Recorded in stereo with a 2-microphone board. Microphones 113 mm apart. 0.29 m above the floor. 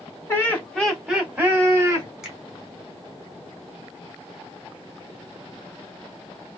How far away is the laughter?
About 1.5 m.